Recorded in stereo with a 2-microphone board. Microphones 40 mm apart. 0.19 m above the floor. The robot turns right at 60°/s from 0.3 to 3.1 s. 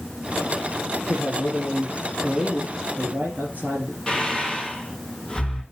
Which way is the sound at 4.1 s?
10° left (ahead or behind).